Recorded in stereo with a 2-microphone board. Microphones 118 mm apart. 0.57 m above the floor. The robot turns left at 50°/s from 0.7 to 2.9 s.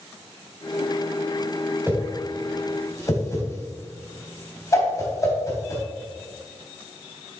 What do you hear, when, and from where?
1.9 s a whoosh: 25° right (ahead or behind), 2.5 m; by 5.8 s 30° left (ahead or behind), 2.5 m